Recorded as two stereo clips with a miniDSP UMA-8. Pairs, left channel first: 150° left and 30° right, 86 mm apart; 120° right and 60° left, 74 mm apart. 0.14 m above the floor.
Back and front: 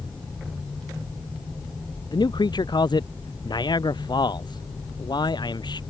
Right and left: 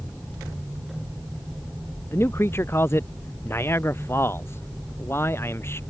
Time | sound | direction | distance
2.1 | a man speaking | 175° right | ?